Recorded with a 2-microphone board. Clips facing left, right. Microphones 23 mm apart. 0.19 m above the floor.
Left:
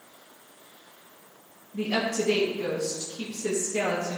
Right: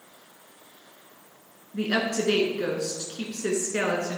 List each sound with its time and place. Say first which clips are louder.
1.7 s a woman speaking: right 1 dB; 60° right (ahead or behind), 2 m